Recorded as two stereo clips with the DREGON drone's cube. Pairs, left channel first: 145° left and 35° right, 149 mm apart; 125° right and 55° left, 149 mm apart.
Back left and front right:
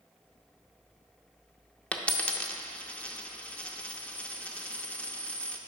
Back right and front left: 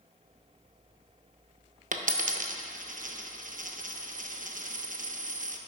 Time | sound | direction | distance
1.9 | a dropped coin | 65° left | 0.5 m